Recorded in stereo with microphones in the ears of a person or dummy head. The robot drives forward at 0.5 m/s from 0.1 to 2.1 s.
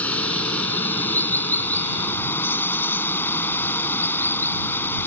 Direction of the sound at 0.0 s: 10° left (ahead or behind).